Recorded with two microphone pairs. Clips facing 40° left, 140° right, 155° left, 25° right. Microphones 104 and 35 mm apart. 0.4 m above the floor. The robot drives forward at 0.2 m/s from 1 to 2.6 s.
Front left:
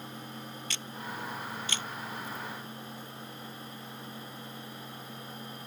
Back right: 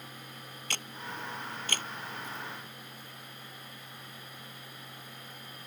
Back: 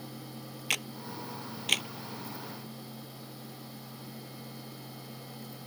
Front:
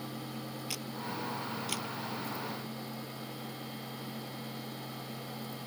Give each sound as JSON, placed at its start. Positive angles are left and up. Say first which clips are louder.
{"t": 0.7, "sound": "a camera shutter", "louder": "back right 1 dB, back 6 dB", "azimuth_deg": 180}